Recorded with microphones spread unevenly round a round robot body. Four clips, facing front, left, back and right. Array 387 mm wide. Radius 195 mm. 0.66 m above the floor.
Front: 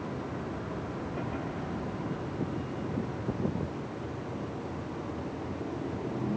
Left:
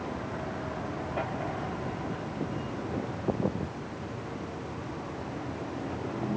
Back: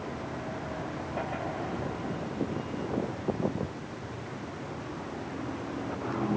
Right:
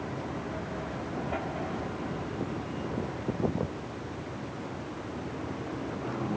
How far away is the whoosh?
No whoosh in this recording.